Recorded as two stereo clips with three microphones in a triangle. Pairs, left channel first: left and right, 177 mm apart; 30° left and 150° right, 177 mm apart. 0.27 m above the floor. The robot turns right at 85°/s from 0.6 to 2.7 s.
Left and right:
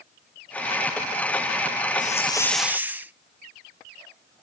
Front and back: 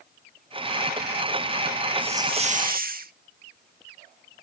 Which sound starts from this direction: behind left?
A hiss, at 2.0 s.